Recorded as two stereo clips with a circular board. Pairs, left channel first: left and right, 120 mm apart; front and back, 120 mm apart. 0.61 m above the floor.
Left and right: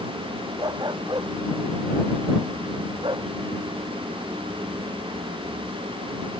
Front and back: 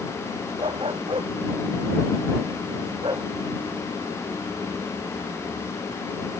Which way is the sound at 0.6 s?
140° right.